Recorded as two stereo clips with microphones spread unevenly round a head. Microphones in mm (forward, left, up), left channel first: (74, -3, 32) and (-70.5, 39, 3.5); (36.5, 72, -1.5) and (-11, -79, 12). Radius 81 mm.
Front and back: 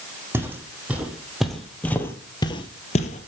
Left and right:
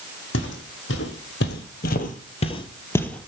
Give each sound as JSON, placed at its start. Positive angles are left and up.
{"t": 0.3, "sound": "footsteps", "azimuth_deg": 85, "distance_m": 2.5}